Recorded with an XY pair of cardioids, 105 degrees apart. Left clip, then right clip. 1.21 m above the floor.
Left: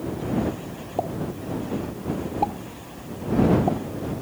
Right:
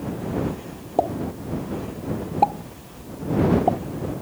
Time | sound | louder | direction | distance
1.0 | a pop | right 5 dB | 40° right | ?